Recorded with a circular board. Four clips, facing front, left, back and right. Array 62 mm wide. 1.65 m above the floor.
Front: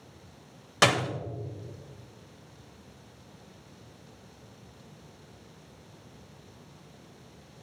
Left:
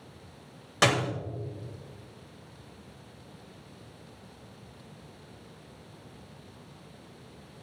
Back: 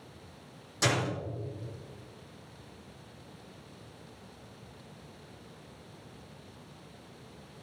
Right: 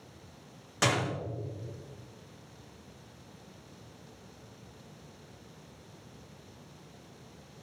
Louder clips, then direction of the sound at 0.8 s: Left 4 dB, front 5 dB; 25° left.